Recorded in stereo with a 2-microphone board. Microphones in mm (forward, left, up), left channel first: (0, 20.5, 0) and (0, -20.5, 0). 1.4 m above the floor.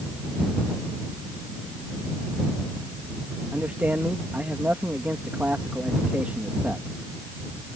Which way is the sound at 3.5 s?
40° right (ahead or behind).